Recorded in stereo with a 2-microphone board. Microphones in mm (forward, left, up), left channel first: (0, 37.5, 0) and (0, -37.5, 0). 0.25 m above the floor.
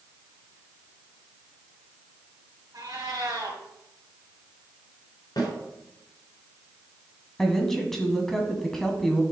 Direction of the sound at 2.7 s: 55° right (ahead or behind).